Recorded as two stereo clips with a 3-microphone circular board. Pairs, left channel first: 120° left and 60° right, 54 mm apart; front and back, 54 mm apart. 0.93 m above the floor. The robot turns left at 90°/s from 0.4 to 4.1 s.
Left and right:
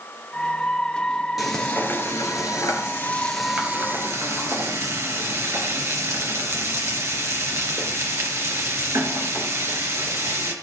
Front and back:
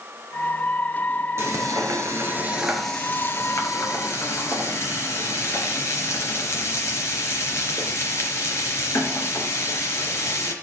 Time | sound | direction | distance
1.4 | frying | 145° right | 3.5 m